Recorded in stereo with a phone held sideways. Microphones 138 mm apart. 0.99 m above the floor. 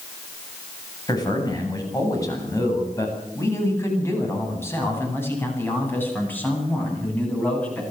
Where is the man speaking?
30° left (ahead or behind), 8.5 m; by 7.8 s 10° left (ahead or behind), 10 m.